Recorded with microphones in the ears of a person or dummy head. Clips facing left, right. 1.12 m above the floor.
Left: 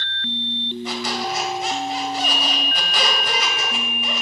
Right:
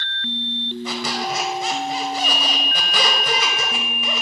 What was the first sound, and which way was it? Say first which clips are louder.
A squeak: even; 60° right (ahead or behind).